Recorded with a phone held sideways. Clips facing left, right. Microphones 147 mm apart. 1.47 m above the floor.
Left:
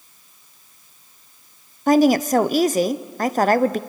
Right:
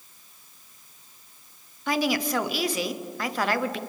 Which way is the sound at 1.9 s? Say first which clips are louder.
Left 11 dB; 45° left (ahead or behind).